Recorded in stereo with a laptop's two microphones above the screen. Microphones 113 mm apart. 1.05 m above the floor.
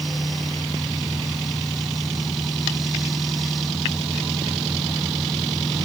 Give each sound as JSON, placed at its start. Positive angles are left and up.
{"t": 0.0, "sound": "a fan", "side_deg": 0}